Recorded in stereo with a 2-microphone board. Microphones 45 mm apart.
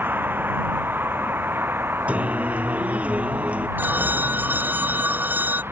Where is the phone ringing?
45° right (ahead or behind).